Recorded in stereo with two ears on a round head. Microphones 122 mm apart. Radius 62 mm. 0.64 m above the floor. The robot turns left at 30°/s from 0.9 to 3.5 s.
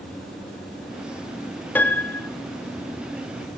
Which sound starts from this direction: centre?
A piano, at 1.8 s.